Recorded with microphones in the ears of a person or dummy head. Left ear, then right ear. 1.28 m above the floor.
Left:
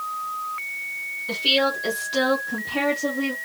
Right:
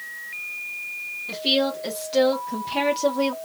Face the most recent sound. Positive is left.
turn(degrees=-65)  # may be behind; listen again after turning